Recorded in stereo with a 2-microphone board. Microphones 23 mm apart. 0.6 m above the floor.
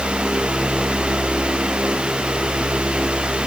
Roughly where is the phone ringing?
I don't hear a phone ringing.